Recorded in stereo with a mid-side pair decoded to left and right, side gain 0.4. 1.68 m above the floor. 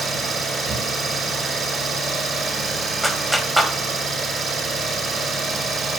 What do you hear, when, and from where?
0.0 s an engine running: 60° right, 5.5 m
3.0 s a clap: 10° right, 1.9 m